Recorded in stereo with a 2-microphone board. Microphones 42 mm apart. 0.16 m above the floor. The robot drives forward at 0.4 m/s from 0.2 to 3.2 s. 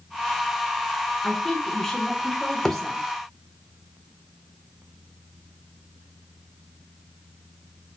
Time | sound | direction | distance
1.2 | a woman speaking | 5° left (ahead or behind) | 1.3 m
2.6 | a thud | 15° left (ahead or behind) | 0.9 m